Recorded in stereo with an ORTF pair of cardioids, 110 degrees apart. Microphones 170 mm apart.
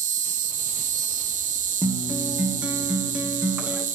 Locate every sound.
0.0 s an insect: 50° right, 0.9 m
1.8 s a guitar: 5° right, 1.2 m